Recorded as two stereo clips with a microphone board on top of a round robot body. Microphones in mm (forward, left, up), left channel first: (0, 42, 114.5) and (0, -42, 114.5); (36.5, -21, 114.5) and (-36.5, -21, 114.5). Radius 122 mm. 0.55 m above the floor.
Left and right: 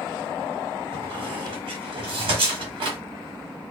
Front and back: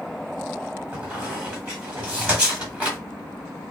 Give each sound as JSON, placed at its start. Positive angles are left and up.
{"t": 0.9, "sound": "a squeak", "azimuth_deg": -110, "distance_m": 1.2}